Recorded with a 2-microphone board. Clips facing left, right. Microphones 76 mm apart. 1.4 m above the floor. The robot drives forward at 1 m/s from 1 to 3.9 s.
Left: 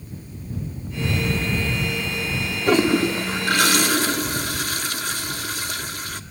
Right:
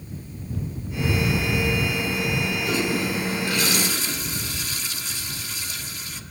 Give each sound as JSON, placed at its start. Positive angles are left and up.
{"t": 2.7, "sound": "a toilet flushing", "side_deg": 55, "distance_m": 1.6}